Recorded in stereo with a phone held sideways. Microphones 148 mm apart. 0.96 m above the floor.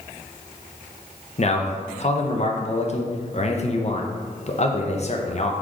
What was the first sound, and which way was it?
A man speaking, 45° left (ahead or behind).